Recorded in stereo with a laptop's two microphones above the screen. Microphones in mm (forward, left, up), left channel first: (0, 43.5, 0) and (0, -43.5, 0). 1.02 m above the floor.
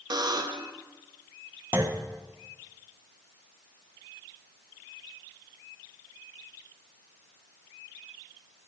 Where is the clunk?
30° right (ahead or behind), 0.9 m.